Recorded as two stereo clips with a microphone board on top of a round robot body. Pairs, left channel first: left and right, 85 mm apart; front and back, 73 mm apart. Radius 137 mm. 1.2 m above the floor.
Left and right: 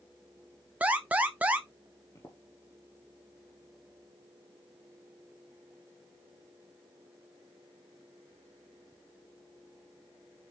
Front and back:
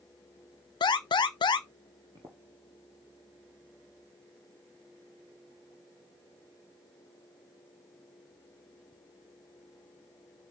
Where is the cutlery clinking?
No cutlery clinking in this recording.